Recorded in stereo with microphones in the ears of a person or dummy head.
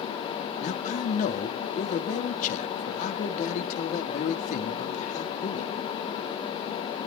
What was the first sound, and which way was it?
A man speaking, 45° left (ahead or behind).